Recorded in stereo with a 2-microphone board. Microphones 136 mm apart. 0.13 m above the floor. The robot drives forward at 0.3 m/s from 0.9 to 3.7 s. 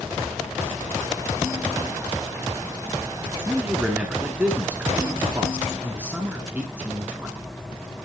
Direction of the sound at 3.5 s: 10° right (ahead or behind).